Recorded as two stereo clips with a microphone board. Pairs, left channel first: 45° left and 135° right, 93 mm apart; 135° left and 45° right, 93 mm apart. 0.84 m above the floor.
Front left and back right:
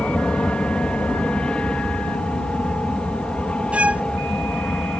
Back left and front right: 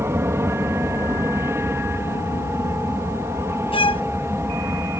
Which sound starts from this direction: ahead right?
An aircraft, at 0.0 s.